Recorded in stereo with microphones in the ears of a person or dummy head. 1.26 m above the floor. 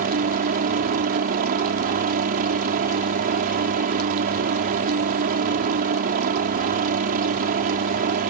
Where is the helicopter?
45° right (ahead or behind).